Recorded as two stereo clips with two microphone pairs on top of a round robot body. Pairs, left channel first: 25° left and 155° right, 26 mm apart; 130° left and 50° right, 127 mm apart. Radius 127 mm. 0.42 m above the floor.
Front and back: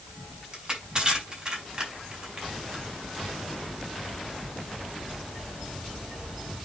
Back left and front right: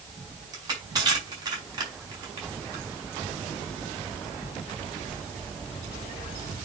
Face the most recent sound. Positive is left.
turn(degrees=-105)